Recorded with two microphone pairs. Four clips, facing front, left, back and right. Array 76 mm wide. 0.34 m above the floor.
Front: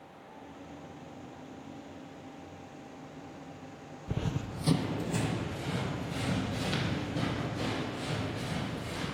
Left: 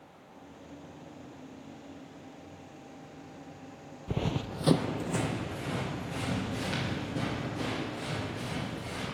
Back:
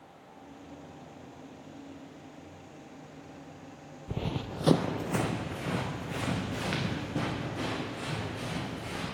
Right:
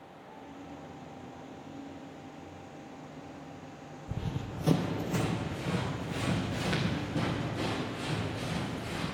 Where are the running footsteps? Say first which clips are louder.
Left 6 dB, back 1 dB; 80° left, 0.5 m; by 9.0 s 170° right, 6 m.